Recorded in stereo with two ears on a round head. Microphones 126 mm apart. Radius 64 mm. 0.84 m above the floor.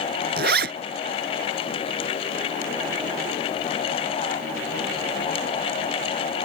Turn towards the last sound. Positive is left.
turn(degrees=-80)